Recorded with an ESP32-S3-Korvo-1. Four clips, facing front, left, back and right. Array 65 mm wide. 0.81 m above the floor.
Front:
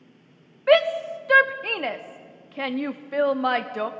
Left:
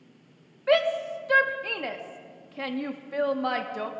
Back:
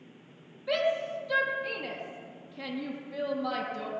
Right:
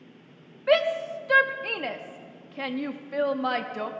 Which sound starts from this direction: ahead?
A shout, at 0.7 s.